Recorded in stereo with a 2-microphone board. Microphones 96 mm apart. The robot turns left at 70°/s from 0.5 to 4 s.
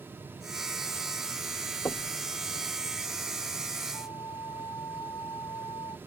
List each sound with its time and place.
1.9 s knocking: 35° left (ahead or behind); by 2.2 s 10° left (ahead or behind)
3.9 s a flute: 45° left (ahead or behind); by 6.0 s 40° left (ahead or behind)